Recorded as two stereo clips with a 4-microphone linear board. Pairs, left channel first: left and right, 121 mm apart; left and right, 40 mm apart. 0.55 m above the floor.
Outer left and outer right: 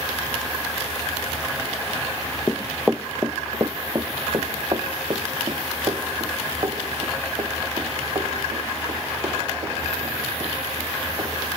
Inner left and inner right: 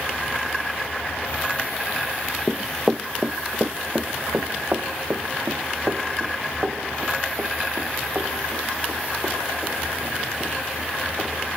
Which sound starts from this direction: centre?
Running footsteps, at 2.5 s.